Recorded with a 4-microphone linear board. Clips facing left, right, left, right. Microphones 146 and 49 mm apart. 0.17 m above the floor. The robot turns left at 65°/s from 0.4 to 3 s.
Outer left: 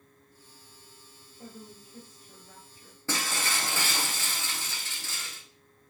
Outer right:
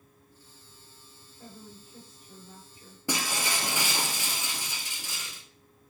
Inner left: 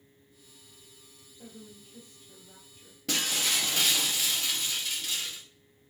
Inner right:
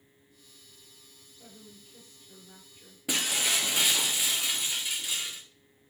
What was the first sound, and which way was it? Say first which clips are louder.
A woman speaking: outer left 2 dB, inner left 4 dB; 35° left.